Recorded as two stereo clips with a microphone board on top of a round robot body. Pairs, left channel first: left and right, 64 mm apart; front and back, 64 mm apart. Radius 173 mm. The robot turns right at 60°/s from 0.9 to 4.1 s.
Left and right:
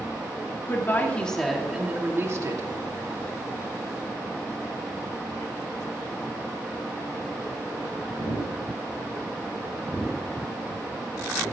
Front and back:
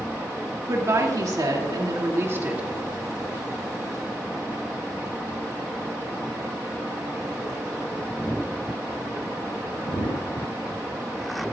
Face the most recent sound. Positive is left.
turn(degrees=-25)